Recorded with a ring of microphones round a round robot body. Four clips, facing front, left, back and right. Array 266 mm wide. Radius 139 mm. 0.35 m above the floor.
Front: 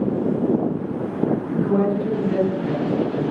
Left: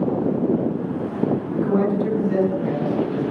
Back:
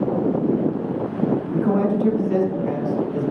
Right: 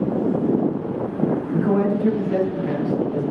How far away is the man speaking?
About 4 m.